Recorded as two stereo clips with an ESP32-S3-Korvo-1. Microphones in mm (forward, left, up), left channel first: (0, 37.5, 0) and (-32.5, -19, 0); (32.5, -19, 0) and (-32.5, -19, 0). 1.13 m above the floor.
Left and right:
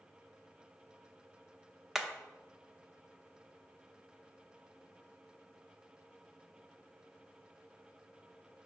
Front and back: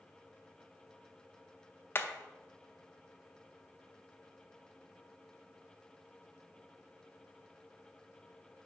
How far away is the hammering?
About 0.7 m.